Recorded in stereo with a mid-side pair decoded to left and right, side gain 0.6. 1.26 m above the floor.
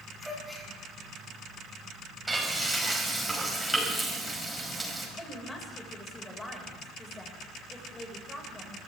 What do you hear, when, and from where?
0.2 s a gasp: 5° right, 9.5 m
2.3 s frying: 5° right, 5.5 m
5.2 s a woman speaking: 20° left, 6.5 m